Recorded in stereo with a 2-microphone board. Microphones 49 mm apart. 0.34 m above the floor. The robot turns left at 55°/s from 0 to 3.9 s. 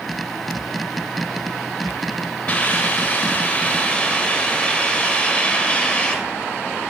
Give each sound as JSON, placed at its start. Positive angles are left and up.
{"t": 2.5, "sound": "a hiss", "azimuth_deg": 115, "distance_m": 1.3}